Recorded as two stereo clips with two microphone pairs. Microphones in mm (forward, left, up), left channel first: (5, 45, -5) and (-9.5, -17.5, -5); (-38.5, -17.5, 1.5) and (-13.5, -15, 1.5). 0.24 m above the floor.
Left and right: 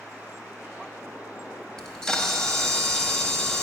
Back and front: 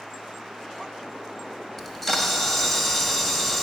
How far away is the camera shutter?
About 0.8 m.